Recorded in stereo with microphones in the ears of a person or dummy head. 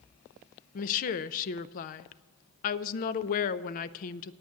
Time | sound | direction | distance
0.8 | a woman speaking | 45° left (ahead or behind) | 0.5 m